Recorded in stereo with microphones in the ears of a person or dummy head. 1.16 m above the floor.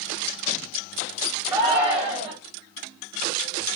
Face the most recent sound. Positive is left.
turn(degrees=-20)  # may be behind; listen again after turning